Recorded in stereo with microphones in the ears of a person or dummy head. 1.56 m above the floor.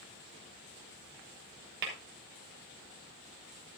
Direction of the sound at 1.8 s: 55° right (ahead or behind).